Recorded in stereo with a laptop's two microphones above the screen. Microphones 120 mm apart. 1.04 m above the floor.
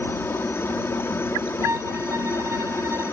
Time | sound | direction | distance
0.0 | a helicopter | 20° left (ahead or behind) | ?
1.6 | a violin | 25° right (ahead or behind) | ?